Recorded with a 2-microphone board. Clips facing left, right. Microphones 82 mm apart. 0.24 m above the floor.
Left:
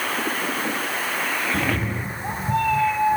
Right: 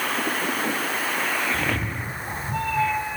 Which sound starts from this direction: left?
A cat meowing, at 1.5 s.